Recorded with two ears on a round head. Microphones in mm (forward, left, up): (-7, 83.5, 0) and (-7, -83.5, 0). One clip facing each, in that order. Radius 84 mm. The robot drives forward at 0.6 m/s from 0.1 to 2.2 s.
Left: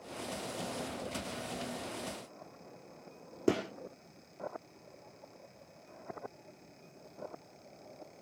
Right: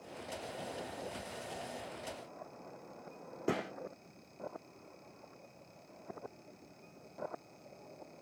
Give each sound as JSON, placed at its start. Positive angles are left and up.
{"t": 3.5, "sound": "a gunshot", "side_deg": 65, "distance_m": 2.5}